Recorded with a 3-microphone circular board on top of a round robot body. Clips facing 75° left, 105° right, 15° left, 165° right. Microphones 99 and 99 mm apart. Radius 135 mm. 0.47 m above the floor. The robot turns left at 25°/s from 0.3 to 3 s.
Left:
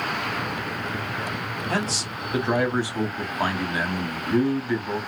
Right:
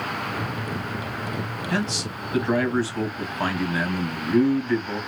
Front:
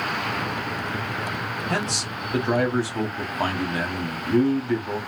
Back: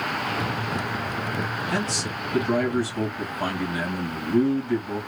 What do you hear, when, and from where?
1.7 s a man speaking: 35° left, 1.6 m; by 5.0 s straight ahead, 1.6 m